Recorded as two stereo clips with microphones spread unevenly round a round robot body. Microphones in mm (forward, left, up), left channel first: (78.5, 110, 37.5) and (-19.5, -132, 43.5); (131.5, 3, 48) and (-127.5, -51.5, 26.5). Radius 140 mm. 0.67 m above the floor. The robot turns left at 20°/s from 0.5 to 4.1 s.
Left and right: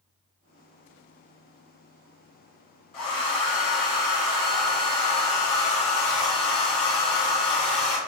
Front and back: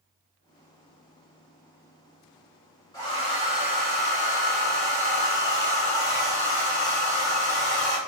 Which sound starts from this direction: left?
A hair dryer, at 2.9 s.